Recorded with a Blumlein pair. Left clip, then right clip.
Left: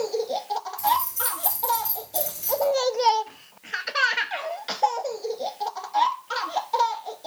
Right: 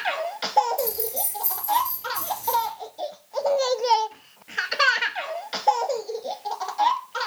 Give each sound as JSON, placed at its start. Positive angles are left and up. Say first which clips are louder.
{"t": 0.8, "sound": "keys jangling", "louder": "left 5 dB", "azimuth_deg": -15, "distance_m": 2.5}